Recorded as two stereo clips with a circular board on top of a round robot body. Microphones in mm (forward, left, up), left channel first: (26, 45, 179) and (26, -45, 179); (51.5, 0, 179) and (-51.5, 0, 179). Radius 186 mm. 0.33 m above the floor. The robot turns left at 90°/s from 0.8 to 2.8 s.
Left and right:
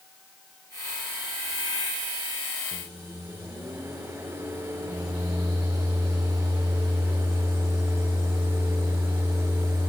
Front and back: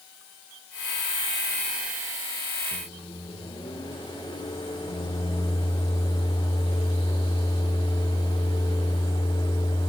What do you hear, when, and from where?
2.7 s a microwave: 25° right, 1.2 m; by 9.9 s 30° right, 1.2 m